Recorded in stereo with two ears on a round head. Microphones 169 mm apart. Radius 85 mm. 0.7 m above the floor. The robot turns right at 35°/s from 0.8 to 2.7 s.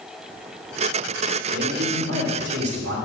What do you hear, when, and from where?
1.5 s a man speaking: 115° right, 2.5 m; by 3.0 s 70° right, 2.5 m